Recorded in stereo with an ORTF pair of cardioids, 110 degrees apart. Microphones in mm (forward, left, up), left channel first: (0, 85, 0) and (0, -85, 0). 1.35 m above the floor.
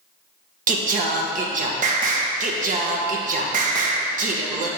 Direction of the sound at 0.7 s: 50° right.